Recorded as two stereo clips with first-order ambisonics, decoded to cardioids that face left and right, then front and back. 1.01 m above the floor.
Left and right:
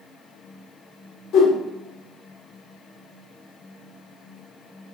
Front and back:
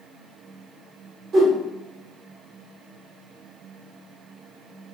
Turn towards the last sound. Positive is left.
turn(degrees=130)